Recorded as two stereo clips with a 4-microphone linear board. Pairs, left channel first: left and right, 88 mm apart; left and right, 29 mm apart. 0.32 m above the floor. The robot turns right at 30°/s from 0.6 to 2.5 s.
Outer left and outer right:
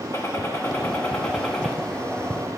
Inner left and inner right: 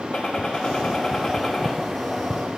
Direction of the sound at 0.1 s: 145° left.